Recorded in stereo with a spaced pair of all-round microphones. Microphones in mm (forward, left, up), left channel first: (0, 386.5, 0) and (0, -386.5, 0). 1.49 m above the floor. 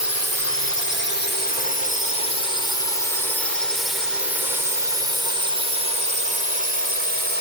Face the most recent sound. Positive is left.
turn(degrees=-80)